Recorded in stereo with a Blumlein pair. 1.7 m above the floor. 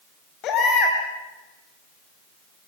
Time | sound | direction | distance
0.4 | a baby crying | 35° left | 5 m